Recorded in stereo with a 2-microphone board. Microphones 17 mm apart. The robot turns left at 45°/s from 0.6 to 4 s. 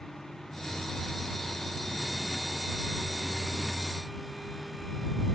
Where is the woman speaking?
No woman speaking in this recording.